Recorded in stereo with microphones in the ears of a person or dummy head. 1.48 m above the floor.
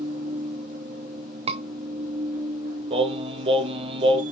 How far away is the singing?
About 1.1 m.